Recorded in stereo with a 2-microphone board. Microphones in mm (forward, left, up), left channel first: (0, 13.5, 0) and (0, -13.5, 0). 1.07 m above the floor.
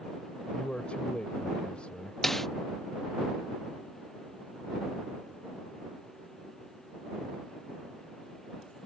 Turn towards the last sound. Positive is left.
turn(degrees=10)  # may be behind; listen again after turning